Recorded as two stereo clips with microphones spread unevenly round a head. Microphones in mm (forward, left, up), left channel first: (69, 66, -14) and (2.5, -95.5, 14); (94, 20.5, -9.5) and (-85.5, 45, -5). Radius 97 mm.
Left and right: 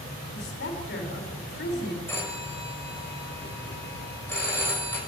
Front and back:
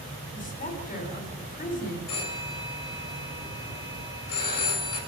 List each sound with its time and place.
0.3 s a woman speaking: 40° left, 6 m
2.1 s a phone ringing: 10° right, 6 m